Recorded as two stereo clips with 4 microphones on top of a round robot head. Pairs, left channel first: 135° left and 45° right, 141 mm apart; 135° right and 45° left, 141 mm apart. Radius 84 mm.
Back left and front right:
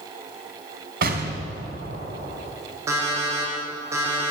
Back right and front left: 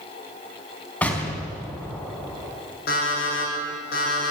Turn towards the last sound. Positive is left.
turn(degrees=-115)